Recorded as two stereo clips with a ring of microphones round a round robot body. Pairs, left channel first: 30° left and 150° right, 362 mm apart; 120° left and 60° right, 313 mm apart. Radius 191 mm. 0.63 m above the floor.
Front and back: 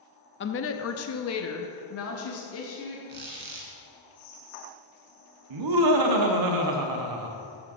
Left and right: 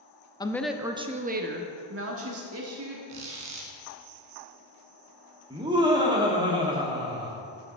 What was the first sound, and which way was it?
A woman speaking, 55° left.